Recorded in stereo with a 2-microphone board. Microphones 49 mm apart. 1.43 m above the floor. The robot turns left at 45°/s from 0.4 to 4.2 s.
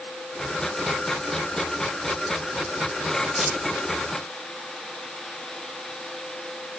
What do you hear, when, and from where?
3.3 s a squeak: 5° left (ahead or behind), 3 m; by 3.6 s 15° left (ahead or behind), 3 m